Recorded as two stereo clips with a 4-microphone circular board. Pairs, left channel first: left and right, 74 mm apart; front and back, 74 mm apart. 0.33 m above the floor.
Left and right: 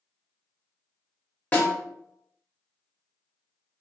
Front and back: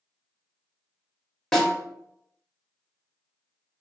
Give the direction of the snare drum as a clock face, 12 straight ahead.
10 o'clock.